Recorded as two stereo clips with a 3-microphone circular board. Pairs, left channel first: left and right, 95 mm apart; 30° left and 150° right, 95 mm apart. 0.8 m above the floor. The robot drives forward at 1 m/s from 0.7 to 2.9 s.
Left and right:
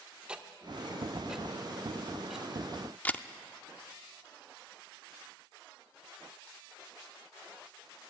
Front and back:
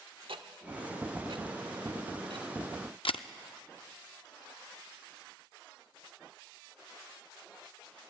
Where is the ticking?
170° right, 1.1 m; by 2.5 s 175° right, 3 m.